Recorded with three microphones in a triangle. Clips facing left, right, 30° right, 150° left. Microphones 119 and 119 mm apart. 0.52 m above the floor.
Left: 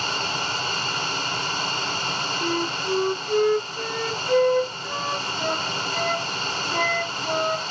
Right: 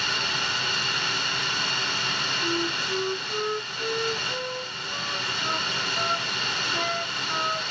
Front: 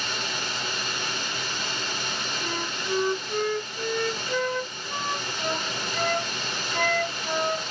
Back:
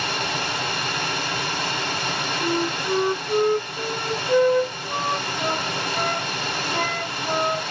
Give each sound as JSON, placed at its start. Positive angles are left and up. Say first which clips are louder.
{"t": 0.0, "sound": "running water", "louder": "left 3 dB, back 6 dB", "azimuth_deg": 140, "distance_m": 1.0}
{"t": 2.4, "sound": "a flute", "louder": "left 3 dB, back 11 dB", "azimuth_deg": 95, "distance_m": 0.6}